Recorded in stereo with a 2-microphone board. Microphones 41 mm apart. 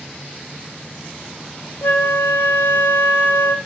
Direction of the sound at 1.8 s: 65° left (ahead or behind).